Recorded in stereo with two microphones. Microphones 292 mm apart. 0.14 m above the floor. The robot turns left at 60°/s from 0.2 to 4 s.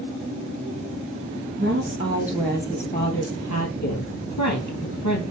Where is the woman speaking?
130° right, 3 m; by 5.2 s 85° left, 3 m.